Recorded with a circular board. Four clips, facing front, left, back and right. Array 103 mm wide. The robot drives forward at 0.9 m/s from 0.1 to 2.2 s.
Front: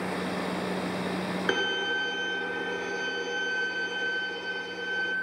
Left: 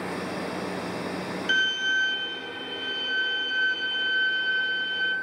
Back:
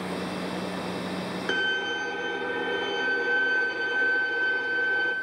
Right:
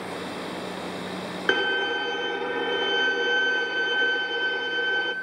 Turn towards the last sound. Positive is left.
turn(degrees=-110)